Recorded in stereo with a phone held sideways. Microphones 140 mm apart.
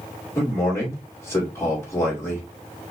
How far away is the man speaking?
About 2.5 m.